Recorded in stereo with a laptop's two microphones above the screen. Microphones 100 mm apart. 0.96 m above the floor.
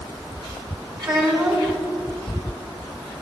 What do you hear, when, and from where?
1.0 s a child speaking: 45° right (ahead or behind), 4.5 m